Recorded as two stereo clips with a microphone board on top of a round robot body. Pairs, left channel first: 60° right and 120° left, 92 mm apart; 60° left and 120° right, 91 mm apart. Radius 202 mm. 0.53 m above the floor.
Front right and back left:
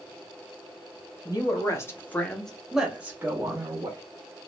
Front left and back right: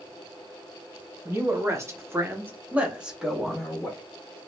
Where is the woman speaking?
80° right, 1.2 m; by 4.0 s 145° left, 1.2 m.